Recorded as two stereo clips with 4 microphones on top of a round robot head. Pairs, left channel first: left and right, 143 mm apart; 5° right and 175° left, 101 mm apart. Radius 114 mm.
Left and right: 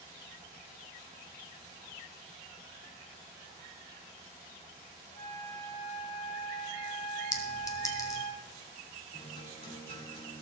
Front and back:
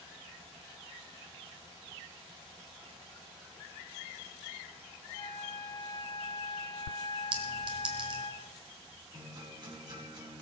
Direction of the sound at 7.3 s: 155° left.